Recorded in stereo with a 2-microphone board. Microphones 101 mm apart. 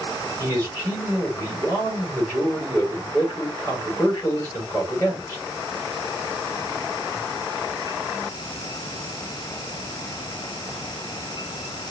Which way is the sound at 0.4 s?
25° left (ahead or behind).